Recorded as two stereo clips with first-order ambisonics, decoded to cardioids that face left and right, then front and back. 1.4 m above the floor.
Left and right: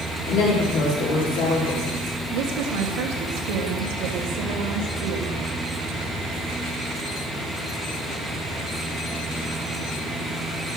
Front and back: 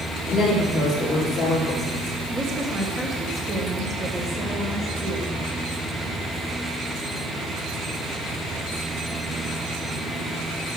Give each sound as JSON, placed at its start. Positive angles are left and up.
{"t": 0.3, "sound": "a woman speaking", "azimuth_deg": 75, "distance_m": 3.5}
{"t": 2.3, "sound": "a woman speaking", "azimuth_deg": -110, "distance_m": 1.4}